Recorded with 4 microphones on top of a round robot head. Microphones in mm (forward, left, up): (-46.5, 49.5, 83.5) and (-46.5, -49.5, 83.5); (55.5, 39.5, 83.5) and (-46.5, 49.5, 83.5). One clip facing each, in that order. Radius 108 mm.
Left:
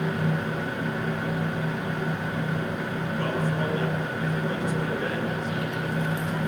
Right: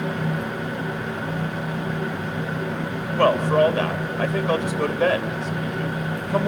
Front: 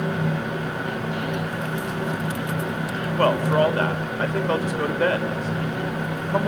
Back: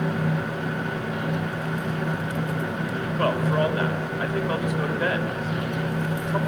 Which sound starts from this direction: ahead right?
A man speaking, at 3.2 s.